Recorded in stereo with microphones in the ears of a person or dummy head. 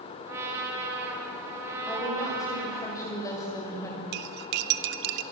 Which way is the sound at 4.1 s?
45° right (ahead or behind).